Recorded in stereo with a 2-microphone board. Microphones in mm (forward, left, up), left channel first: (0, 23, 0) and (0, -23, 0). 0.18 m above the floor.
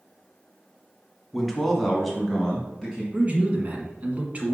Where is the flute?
I don't hear a flute.